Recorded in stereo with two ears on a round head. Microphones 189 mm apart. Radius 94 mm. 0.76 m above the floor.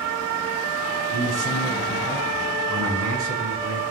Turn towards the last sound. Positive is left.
turn(degrees=-85)